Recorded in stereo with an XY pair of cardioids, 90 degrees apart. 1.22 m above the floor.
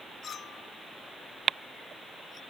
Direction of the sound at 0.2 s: 65° left.